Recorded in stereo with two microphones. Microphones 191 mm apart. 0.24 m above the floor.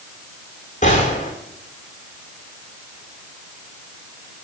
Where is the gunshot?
40° left (ahead or behind), 4.5 m.